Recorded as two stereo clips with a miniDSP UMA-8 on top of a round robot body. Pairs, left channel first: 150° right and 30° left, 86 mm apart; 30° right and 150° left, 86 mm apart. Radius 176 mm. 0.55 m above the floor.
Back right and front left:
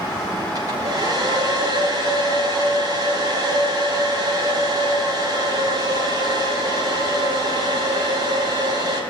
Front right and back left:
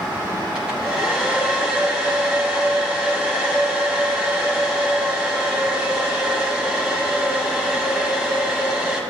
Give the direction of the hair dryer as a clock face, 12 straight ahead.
10 o'clock.